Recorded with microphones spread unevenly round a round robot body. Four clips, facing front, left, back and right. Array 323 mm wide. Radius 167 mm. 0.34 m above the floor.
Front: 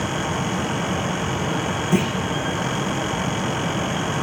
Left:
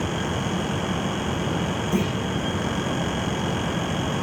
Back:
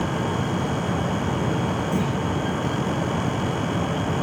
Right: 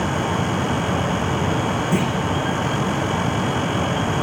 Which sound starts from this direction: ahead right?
A clunk, at 1.9 s.